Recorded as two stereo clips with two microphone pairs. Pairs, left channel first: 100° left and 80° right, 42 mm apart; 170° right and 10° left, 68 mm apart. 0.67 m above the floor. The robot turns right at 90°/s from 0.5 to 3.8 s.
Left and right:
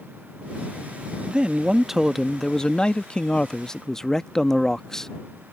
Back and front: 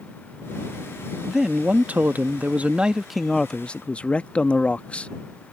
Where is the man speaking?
70° right; by 5.1 s 155° left.